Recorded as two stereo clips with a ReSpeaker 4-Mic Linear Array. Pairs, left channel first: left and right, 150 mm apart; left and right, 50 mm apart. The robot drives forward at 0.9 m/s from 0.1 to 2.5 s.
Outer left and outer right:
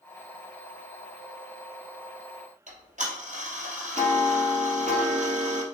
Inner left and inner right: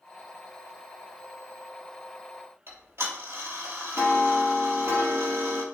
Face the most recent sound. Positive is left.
turn(degrees=-55)  # may be behind; listen again after turning